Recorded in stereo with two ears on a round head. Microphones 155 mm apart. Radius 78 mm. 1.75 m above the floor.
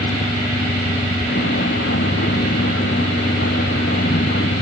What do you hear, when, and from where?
0.0 s a vehicle: 60° left (ahead or behind)